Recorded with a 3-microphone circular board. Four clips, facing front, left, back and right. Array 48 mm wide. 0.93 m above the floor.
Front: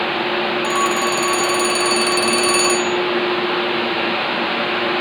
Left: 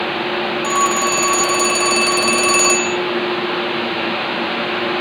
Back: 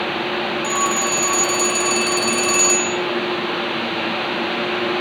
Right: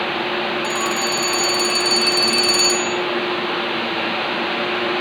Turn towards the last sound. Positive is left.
turn(degrees=80)